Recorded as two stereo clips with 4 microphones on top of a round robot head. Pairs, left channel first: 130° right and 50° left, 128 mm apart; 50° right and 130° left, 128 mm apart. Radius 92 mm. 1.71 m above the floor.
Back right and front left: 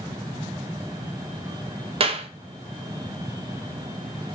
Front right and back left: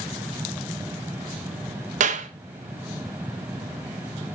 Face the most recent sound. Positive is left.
turn(degrees=100)